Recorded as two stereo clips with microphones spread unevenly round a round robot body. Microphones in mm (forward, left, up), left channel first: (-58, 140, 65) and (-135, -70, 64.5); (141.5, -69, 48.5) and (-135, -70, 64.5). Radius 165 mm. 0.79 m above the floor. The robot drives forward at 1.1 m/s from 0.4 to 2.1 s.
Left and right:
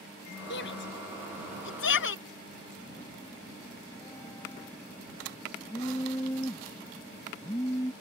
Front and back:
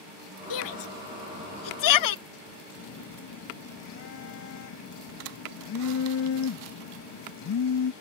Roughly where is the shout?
Ahead.